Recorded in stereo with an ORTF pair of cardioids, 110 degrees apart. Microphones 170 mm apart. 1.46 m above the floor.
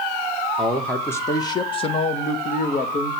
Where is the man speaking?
Straight ahead, 1.3 m; by 3.1 s 55° left, 1.7 m.